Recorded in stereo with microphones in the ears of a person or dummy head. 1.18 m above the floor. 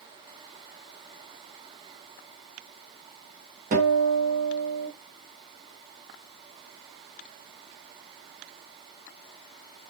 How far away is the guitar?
About 2 m.